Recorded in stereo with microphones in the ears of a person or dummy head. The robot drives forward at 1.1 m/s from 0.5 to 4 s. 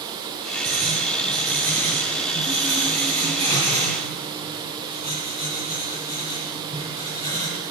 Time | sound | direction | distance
0.7 | writing | 45° right (ahead or behind) | 5.5 m